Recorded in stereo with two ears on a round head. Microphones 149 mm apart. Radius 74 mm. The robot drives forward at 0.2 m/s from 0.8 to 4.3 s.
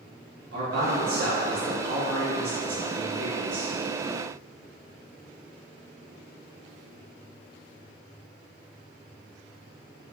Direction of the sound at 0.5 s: 65° right (ahead or behind).